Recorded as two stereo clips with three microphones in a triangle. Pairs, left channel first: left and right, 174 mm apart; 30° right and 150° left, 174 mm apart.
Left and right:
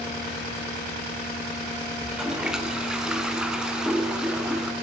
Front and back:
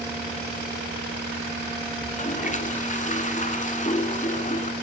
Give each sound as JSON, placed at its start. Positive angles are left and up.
{"t": 2.0, "sound": "a toilet flushing", "azimuth_deg": -5, "distance_m": 1.0}